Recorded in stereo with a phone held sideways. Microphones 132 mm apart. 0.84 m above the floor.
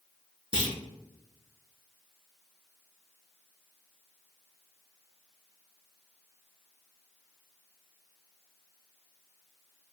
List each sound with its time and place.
0.5 s a clunk: 40° right (ahead or behind), 2.5 m